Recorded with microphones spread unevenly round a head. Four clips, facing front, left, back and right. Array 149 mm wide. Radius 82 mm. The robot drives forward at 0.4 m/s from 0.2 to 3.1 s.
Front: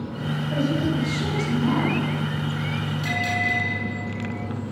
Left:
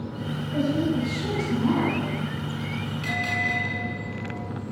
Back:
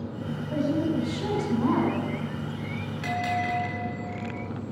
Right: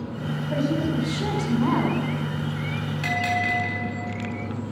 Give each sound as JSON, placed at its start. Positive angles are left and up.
{"t": 0.5, "sound": "a woman speaking", "azimuth_deg": -90, "distance_m": 6.5}
{"t": 3.0, "sound": "a bell", "azimuth_deg": -105, "distance_m": 5.0}